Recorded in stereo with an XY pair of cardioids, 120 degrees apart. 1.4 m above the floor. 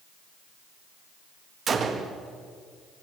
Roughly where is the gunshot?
Ahead right.